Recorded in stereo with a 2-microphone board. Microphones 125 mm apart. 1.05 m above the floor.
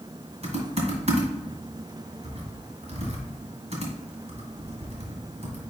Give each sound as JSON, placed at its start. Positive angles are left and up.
{"t": 0.4, "sound": "typing on a keyboard", "side_deg": -55, "distance_m": 1.8}